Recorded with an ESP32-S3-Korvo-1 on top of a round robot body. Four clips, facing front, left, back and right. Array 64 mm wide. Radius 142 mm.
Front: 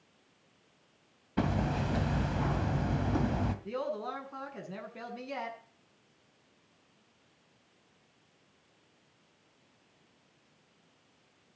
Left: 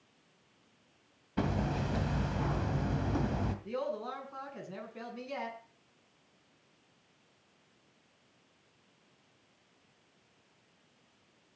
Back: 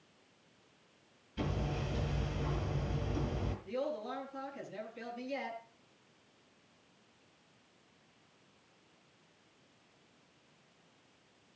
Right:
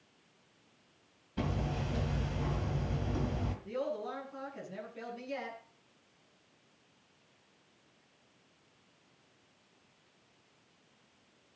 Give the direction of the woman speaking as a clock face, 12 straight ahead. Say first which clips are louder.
Right 3 dB, front 2 dB; 11 o'clock.